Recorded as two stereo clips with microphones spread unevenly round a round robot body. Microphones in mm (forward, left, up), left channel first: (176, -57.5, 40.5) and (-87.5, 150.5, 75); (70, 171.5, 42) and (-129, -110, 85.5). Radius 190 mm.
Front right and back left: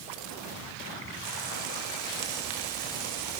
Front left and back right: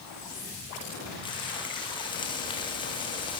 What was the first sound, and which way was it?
Frying, 130° left.